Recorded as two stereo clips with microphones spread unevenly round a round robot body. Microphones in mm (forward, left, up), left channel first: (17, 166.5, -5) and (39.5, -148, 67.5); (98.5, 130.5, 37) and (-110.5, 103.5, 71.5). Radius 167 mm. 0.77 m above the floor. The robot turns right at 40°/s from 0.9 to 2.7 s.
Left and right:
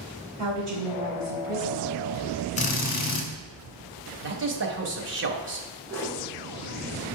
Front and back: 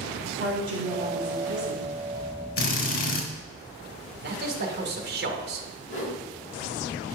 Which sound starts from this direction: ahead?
A whoosh, at 5.9 s.